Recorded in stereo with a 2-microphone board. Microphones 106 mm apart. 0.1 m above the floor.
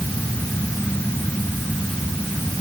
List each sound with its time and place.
Only background noise.